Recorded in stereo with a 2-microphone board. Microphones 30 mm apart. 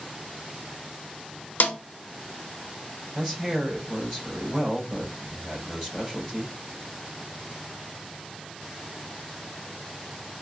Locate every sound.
1.6 s a snare drum: 65° left (ahead or behind), 0.6 m
3.1 s a man speaking: 15° right (ahead or behind), 3 m